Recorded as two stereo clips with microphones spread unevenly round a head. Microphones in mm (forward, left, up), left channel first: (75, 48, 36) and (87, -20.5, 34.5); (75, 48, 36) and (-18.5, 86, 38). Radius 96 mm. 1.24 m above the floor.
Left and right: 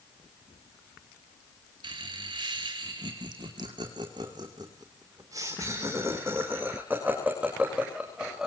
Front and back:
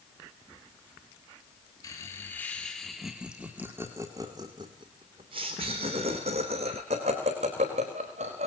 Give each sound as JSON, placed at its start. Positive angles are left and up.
{"t": 1.8, "sound": "laughter", "azimuth_deg": -95, "distance_m": 2.5}